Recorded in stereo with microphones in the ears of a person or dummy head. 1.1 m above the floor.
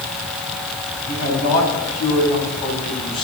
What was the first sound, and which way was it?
A man speaking, 40° left (ahead or behind).